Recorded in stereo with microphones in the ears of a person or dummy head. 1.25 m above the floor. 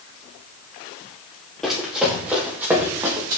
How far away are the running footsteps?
About 4 m.